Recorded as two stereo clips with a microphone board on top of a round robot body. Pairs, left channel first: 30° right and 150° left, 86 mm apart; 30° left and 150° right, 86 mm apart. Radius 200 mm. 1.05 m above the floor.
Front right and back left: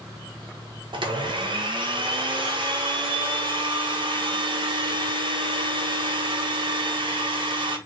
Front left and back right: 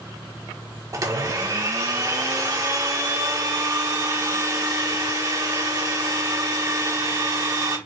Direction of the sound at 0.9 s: 165° left.